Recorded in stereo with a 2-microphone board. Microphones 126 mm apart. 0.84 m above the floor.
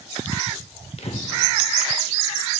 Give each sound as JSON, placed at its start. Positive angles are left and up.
{"t": 1.0, "sound": "breathing", "side_deg": 55, "distance_m": 0.8}